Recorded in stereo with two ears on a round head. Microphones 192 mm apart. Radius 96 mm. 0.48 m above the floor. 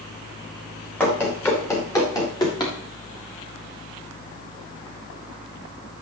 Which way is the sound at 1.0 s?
10° left (ahead or behind).